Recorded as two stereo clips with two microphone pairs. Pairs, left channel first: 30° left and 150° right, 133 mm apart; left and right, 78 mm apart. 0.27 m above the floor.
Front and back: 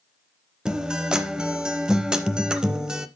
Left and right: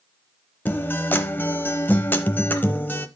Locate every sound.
0.7 s a guitar: 130° left, 0.7 m